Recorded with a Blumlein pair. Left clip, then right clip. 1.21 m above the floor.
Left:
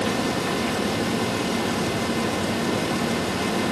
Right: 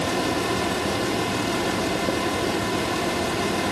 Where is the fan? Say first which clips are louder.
Even; 5° left, 2.0 m.